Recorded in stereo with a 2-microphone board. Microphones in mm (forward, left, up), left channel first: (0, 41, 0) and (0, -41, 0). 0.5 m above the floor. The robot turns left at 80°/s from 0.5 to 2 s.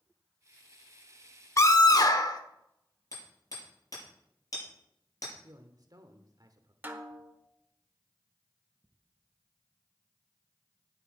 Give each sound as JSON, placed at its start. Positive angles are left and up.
{"t": 1.6, "sound": "a scream", "azimuth_deg": 130, "distance_m": 1.0}
{"t": 3.1, "sound": "hammering", "side_deg": 45, "distance_m": 6.5}
{"t": 5.4, "sound": "a man speaking", "side_deg": -50, "distance_m": 1.2}
{"t": 6.8, "sound": "a snare drum", "side_deg": -25, "distance_m": 1.0}